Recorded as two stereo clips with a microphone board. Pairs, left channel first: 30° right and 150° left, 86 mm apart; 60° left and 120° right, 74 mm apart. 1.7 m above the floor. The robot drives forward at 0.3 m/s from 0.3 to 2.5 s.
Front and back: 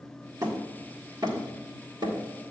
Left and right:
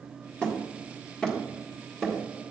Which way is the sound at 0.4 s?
130° left.